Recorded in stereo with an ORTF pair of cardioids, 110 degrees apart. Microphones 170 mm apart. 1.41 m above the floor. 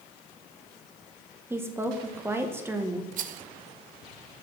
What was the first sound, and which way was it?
A woman speaking, 15° right.